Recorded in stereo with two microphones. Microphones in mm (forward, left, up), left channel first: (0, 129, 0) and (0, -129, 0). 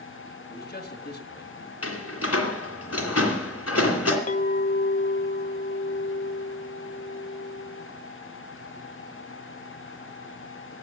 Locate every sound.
0.5 s a man speaking: 40° left (ahead or behind), 1.8 m
1.8 s a door slam: 70° left (ahead or behind), 2.5 m
4.3 s a clink: 30° left (ahead or behind), 0.5 m